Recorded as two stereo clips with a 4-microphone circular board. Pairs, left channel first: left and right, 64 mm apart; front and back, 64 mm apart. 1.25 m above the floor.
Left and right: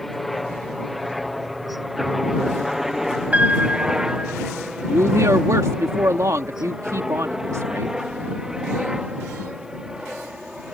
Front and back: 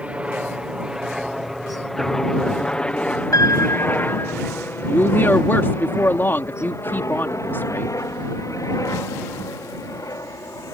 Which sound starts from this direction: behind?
A helicopter, at 0.0 s.